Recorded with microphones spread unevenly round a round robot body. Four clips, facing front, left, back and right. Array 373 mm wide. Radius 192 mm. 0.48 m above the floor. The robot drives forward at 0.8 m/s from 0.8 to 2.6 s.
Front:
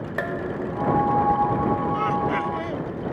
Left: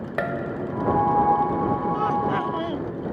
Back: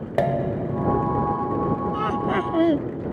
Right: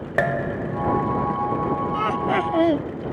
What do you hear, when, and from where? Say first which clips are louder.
0.2 s dishes clattering: right 4 dB, back 6 dB; 160° right; by 1.3 s 165° right
1.9 s laughter: right 1 dB, even; 140° right; by 2.9 s 145° right